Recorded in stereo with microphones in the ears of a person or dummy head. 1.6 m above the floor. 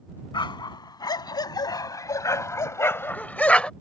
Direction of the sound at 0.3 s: 25° left (ahead or behind).